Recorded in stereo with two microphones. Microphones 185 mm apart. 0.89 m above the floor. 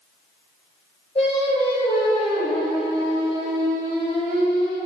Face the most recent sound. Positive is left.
turn(degrees=35)  # may be behind; listen again after turning